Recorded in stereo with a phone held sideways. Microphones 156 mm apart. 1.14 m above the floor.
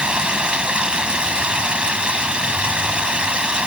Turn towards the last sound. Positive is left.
turn(degrees=-5)  # may be behind; listen again after turning